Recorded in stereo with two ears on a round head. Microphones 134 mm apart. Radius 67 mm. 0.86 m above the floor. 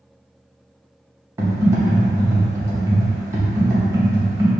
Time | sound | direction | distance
1.4 | typing on a keyboard | 20° right (ahead or behind) | 0.8 m